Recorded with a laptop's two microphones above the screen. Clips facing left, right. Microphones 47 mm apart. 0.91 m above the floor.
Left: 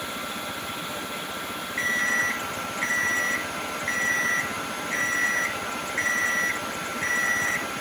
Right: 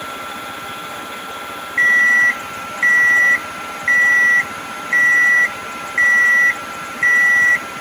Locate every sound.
0.0 s a fan: 55° right (ahead or behind), 1.3 m
1.8 s an alarm clock: 45° right (ahead or behind), 0.6 m